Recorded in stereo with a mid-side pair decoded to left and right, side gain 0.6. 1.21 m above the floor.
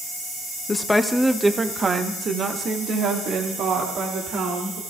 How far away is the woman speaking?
About 0.9 m.